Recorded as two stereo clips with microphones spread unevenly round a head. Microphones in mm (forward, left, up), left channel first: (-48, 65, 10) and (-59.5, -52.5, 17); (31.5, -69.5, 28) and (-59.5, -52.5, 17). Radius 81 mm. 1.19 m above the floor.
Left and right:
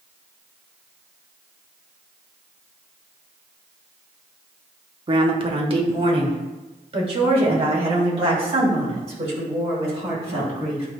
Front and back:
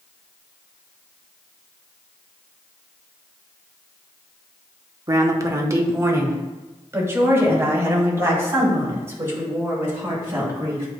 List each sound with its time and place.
5.1 s a woman speaking: 145° right, 1.1 m; by 10.8 s 130° right, 6.5 m